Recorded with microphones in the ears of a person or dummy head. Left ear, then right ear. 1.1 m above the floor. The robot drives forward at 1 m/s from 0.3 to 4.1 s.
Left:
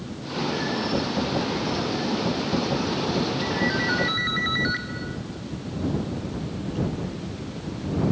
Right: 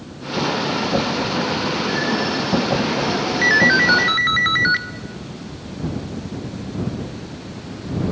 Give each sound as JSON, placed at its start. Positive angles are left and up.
{"t": 3.4, "sound": "a ringtone", "side_deg": -65, "distance_m": 0.6}